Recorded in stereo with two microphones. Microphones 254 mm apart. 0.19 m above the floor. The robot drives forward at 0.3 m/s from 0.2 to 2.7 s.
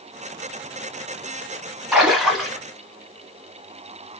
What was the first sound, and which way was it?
A splash, centre (ahead or behind).